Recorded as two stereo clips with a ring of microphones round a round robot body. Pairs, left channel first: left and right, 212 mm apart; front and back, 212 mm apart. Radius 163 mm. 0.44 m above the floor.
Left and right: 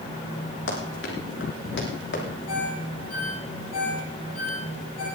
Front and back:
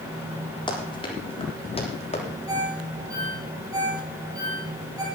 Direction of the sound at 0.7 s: 70° left.